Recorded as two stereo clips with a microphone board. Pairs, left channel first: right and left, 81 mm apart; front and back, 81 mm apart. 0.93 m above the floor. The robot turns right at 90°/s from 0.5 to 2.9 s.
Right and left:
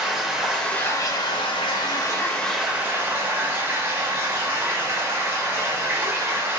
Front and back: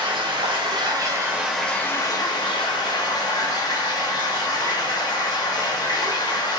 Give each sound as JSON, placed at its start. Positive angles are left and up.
{"t": 0.0, "sound": "running water", "azimuth_deg": 175, "distance_m": 1.1}